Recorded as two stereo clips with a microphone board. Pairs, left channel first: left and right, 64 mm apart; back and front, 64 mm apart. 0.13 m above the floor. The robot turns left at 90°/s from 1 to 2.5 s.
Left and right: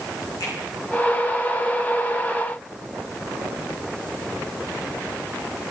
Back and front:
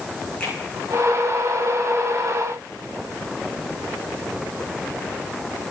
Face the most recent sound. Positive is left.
turn(degrees=-20)